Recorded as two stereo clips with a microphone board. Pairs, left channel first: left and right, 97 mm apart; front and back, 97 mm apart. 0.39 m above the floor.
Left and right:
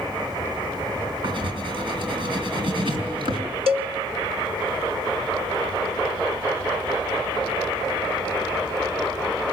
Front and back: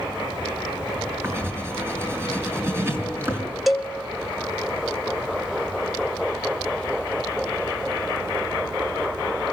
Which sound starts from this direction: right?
A cowbell, at 3.7 s.